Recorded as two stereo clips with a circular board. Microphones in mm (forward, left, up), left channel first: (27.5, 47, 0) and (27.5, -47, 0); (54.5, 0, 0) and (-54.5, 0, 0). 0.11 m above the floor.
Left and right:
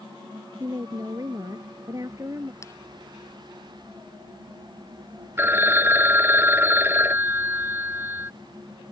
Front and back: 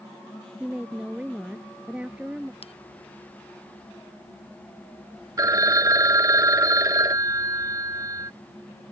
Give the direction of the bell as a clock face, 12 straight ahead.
11 o'clock.